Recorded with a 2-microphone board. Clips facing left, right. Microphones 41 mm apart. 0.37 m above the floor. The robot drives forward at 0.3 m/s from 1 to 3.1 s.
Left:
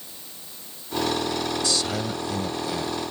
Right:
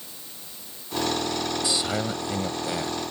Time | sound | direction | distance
1.6 | a man speaking | 20° right (ahead or behind) | ?